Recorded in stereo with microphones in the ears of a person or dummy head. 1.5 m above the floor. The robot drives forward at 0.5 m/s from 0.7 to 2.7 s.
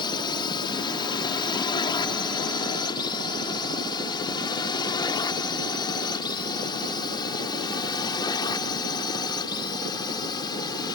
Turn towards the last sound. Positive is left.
turn(degrees=25)  # may be behind; listen again after turning